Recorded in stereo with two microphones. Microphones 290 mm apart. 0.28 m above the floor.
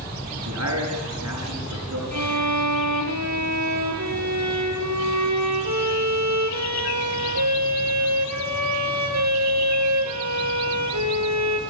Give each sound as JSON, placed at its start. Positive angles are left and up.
{"t": 0.5, "sound": "a man speaking", "side_deg": -60, "distance_m": 5.0}
{"t": 2.1, "sound": "a violin", "side_deg": -65, "distance_m": 2.5}